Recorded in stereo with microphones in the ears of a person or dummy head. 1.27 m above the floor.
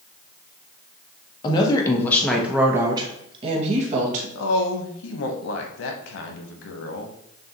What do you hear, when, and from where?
1.4 s a woman speaking: 30° left (ahead or behind), 1.0 m; by 4.2 s 50° right (ahead or behind), 1.3 m
4.3 s a woman speaking: 85° left, 0.9 m